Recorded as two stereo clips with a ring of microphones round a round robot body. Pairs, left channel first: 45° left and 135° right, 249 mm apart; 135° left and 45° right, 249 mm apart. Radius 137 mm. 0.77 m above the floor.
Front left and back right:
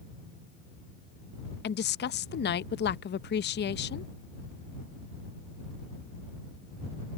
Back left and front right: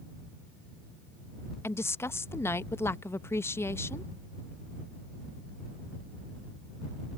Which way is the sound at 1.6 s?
60° left.